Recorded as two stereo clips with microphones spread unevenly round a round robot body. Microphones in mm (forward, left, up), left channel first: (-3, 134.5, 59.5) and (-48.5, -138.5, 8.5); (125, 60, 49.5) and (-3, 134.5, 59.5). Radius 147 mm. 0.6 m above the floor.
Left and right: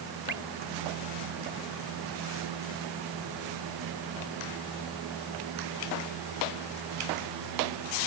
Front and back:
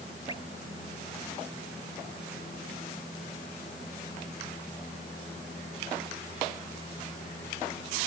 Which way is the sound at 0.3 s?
100° right.